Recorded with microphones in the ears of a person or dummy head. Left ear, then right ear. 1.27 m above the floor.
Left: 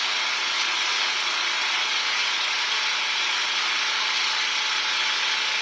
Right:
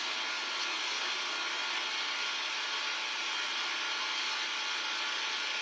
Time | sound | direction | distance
0.0 | an engine running | 60° left (ahead or behind) | 1.2 m